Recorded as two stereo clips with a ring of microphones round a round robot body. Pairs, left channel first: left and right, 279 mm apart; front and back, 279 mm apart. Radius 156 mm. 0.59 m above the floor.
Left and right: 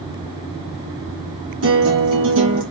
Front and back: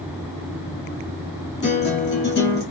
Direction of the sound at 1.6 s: 50° right.